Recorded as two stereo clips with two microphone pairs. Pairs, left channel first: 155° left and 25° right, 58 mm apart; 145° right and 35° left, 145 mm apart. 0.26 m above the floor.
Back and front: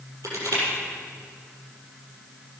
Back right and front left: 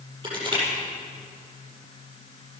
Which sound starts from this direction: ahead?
Crushing, at 0.2 s.